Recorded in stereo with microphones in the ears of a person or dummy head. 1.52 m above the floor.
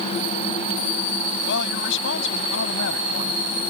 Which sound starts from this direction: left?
A woman speaking, at 1.4 s.